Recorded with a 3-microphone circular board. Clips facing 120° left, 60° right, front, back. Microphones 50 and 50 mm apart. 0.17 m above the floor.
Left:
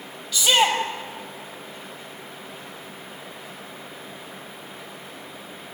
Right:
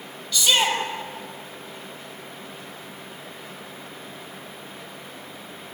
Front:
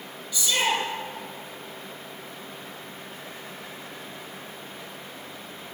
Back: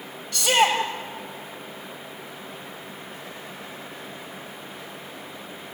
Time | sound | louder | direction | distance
0.3 | a shout | left 2 dB, back 5 dB | 160° right | 5 m